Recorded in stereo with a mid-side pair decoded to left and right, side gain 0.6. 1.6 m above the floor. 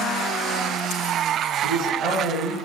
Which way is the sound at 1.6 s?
65° right.